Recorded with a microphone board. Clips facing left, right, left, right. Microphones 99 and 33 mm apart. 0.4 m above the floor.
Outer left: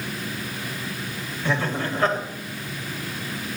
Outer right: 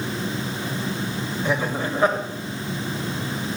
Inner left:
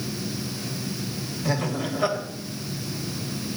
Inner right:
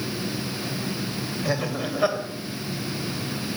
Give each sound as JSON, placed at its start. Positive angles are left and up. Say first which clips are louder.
{"t": 1.4, "sound": "laughter", "louder": "even, inner left 1 dB", "side_deg": -15, "distance_m": 1.8}